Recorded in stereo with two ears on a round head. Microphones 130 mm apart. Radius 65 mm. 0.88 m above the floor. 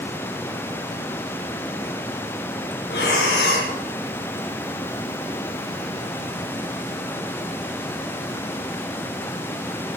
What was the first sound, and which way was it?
Breathing, 75° left (ahead or behind).